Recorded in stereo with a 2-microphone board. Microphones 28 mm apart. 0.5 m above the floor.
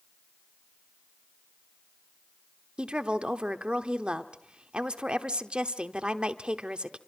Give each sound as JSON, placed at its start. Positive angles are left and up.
{"t": 2.8, "sound": "a woman speaking", "side_deg": -40, "distance_m": 1.0}